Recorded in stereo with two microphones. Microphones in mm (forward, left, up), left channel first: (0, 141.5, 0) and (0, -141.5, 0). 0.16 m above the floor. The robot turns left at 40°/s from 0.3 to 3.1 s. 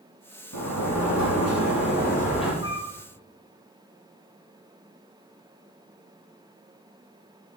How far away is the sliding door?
About 4.5 m.